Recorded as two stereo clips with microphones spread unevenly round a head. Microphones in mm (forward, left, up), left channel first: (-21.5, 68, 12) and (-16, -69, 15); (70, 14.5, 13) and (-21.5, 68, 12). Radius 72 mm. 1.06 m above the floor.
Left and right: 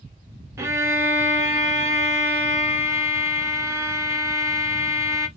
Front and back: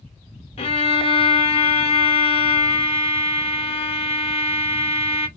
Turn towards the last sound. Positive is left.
turn(degrees=-15)